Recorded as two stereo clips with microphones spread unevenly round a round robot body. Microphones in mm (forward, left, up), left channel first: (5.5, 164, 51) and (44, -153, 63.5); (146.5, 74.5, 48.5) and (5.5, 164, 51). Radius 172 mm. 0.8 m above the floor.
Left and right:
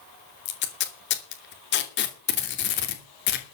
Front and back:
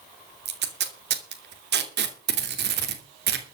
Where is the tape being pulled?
155° left, 2.5 m.